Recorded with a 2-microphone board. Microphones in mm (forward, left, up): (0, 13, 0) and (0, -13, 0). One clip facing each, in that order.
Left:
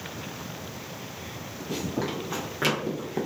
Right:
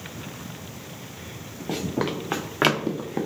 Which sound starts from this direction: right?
Running footsteps, at 1.7 s.